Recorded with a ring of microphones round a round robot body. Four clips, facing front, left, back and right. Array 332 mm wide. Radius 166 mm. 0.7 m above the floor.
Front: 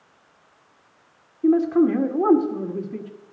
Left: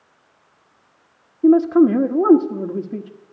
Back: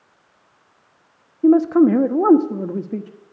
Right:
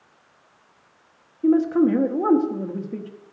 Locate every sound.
1.4 s a man speaking: 155° left, 1.1 m